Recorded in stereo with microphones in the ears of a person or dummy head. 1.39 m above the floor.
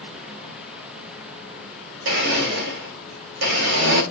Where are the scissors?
No scissors in this recording.